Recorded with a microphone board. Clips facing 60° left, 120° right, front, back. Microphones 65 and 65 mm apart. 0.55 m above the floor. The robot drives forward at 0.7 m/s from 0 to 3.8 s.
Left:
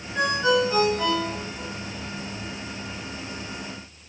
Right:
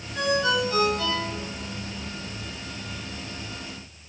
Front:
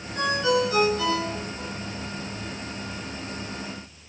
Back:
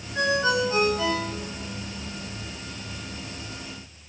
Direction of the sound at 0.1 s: 120° left.